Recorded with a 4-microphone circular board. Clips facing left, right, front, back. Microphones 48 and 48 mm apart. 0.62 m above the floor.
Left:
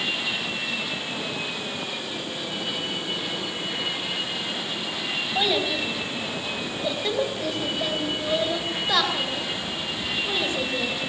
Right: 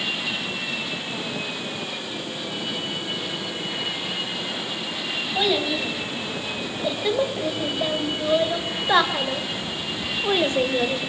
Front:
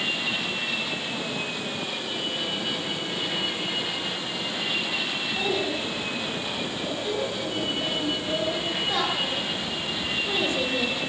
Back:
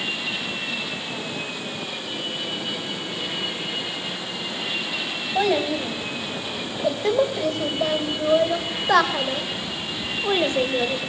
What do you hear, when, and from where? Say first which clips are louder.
5.3 s a child speaking: right 2 dB, back 8 dB; 175° left, 4 m; by 11.0 s 130° right, 2.5 m